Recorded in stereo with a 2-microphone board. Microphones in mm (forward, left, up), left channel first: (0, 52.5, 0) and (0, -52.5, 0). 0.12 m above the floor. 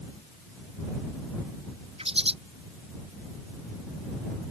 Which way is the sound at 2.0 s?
70° right (ahead or behind).